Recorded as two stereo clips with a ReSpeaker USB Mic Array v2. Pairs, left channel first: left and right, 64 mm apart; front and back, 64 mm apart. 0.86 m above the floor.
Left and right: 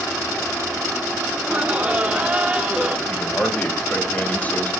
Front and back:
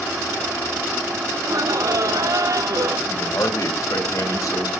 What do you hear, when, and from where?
1.4 s laughter: 160° right, 2.5 m
3.1 s a man speaking: 25° left, 3.5 m